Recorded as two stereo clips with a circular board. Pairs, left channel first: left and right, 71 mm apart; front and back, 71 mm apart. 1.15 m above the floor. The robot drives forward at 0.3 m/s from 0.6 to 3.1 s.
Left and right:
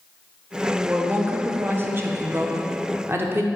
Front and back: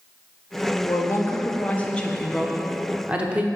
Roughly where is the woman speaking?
Ahead right.